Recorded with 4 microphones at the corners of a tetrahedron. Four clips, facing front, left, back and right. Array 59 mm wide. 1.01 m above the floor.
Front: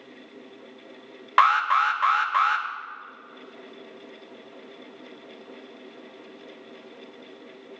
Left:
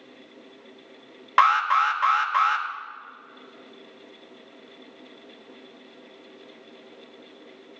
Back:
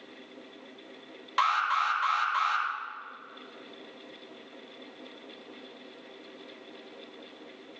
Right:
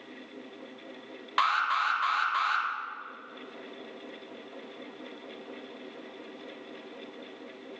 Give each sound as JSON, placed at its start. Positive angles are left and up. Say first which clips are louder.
{"t": 1.4, "sound": "an alarm", "louder": "left 8 dB, front 7 dB", "azimuth_deg": 35, "distance_m": 1.4}